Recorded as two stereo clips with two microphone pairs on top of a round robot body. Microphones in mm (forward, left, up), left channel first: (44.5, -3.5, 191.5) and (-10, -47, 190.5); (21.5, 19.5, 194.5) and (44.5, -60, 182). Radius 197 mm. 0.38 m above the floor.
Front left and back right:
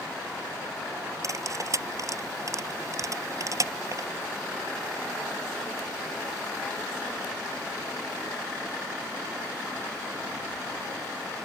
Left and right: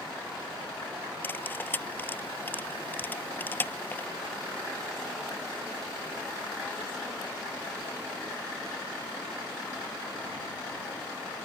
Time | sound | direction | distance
1.2 | cutlery clinking | 175° left | ?